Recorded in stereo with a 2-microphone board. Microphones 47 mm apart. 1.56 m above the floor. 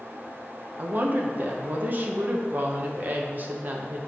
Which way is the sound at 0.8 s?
40° right (ahead or behind).